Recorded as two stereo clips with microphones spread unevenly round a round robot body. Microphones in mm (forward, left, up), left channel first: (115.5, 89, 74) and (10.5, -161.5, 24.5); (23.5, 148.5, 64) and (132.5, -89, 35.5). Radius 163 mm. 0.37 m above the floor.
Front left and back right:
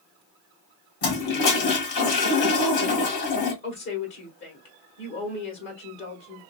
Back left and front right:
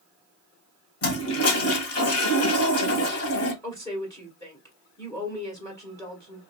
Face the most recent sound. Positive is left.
turn(degrees=35)